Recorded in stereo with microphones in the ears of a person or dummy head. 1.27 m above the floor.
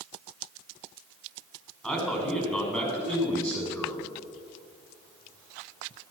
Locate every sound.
1.8 s a man speaking: 10° left (ahead or behind), 5 m; by 4.1 s 15° left (ahead or behind), 6 m